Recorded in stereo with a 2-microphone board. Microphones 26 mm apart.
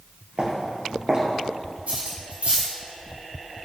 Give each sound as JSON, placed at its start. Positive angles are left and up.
{"t": 0.4, "sound": "footsteps", "side_deg": -45, "distance_m": 2.0}
{"t": 1.9, "sound": "cutlery clinking", "side_deg": -80, "distance_m": 2.5}